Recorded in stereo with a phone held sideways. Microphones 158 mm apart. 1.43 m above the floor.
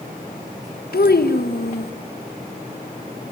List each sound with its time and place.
0.9 s a child speaking: 80° left, 1.5 m